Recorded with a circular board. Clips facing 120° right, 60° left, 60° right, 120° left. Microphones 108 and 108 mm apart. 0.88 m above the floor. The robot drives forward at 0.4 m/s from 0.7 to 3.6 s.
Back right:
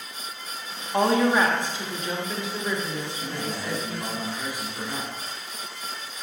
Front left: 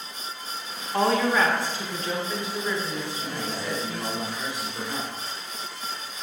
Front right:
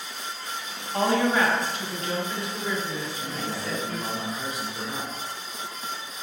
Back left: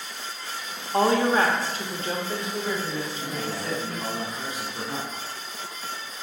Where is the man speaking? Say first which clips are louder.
Even, back left 1 dB; 170° left, 1.8 m.